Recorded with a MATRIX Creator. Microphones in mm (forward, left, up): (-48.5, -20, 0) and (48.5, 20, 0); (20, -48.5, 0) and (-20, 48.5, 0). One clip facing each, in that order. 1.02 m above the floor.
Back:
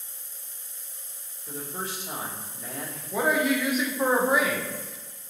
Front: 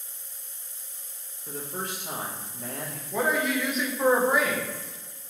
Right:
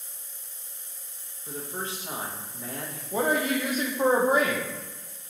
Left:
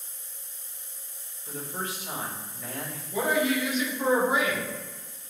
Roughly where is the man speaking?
Ahead.